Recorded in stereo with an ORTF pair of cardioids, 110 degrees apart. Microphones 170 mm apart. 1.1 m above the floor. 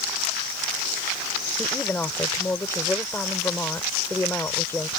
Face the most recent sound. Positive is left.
turn(degrees=15)